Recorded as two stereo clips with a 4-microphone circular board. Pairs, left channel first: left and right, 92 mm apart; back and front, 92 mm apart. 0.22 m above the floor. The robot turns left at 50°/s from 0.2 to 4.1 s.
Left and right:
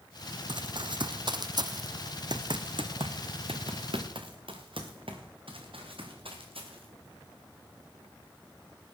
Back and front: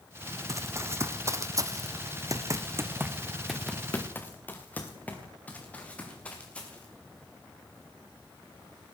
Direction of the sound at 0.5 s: 55° right.